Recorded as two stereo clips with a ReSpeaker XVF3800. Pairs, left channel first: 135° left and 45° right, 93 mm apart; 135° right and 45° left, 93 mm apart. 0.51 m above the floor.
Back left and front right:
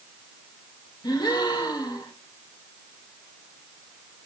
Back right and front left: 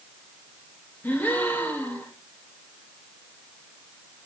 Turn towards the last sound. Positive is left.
turn(degrees=160)